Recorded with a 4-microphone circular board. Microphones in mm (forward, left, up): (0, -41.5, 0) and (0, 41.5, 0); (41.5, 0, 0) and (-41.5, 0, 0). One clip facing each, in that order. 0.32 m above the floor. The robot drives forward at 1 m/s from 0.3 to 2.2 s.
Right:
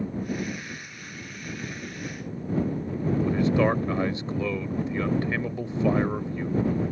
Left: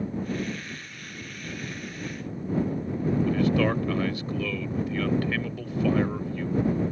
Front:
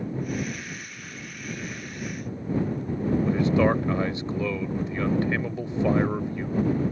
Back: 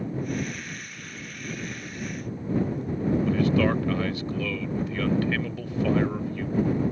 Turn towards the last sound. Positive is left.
turn(degrees=-45)